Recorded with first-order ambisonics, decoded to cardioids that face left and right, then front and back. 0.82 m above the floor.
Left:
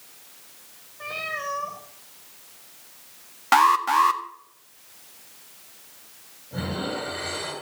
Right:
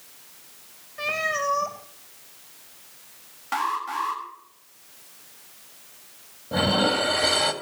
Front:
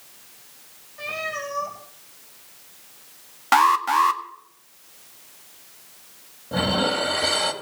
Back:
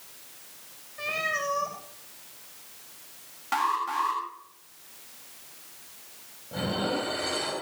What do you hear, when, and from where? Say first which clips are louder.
1.0 s a cat meowing: right 5 dB, even; 95° right, 5.5 m
3.5 s an alarm: left 9 dB, front 9 dB; 45° left, 1.7 m
6.5 s dishes clattering: right 9 dB, front 7 dB; 55° right, 2.5 m